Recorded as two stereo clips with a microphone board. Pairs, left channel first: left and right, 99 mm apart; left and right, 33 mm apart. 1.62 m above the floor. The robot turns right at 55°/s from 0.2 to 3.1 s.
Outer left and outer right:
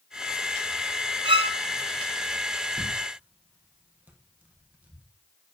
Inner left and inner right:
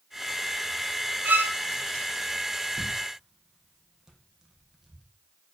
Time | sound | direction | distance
1.2 | a violin | 60° right (ahead or behind) | 0.7 m
2.8 | tearing paper | 35° right (ahead or behind) | 1.3 m